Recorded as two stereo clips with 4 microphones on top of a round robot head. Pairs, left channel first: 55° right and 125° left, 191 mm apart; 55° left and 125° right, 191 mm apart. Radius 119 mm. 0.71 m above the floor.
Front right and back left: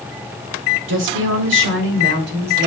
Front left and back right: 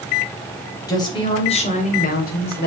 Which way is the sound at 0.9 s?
125° left.